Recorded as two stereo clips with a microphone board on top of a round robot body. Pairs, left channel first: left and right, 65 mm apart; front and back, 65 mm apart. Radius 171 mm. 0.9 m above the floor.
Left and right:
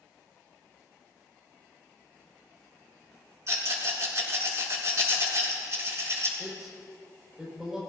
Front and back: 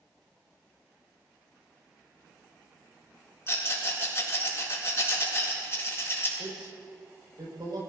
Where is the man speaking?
170° right, 5.5 m.